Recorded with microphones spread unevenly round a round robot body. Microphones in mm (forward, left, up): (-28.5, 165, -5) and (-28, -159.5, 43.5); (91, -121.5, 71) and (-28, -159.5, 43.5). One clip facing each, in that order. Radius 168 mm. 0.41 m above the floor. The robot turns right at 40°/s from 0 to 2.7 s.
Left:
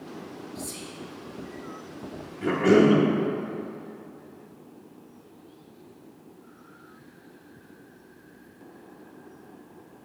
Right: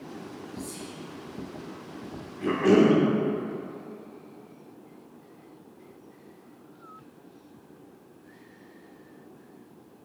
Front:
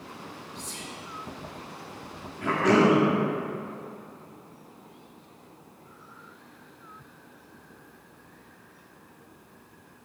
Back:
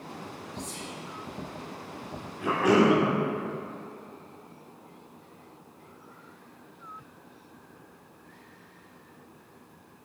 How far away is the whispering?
About 1.5 m.